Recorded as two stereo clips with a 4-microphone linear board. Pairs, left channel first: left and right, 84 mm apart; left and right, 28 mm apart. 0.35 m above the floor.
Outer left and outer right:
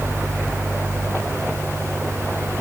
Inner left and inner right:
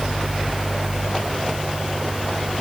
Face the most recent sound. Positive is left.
No sound to turn to.